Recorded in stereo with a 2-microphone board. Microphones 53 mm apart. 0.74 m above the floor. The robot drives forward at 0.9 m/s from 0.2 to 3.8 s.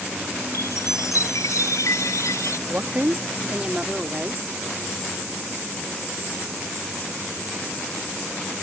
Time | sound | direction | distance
0.5 | a chime | 80° left | ?
2.7 | a woman speaking | 45° right (ahead or behind) | ?